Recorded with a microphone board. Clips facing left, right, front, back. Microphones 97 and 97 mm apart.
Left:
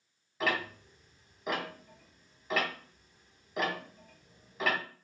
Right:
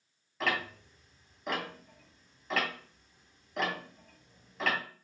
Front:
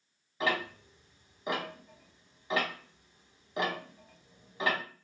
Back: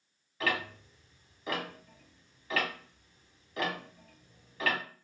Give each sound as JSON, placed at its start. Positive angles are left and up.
{"t": 0.4, "sound": "ticking", "azimuth_deg": 10, "distance_m": 0.7}